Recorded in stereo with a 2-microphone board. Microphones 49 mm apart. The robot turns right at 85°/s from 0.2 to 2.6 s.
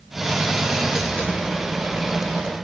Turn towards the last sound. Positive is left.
No sound to turn to.